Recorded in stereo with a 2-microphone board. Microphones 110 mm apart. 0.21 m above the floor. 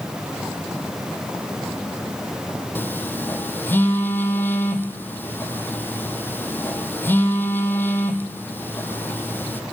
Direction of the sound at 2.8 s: 20° left (ahead or behind).